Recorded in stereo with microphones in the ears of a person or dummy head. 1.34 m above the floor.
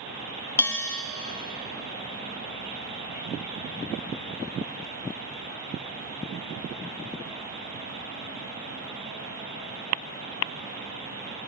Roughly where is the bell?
Centre.